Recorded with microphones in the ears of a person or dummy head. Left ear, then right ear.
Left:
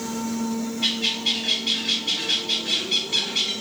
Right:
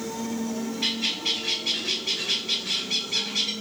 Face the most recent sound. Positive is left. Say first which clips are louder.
# left 3 dB
turn(degrees=-40)  # may be behind; listen again after turning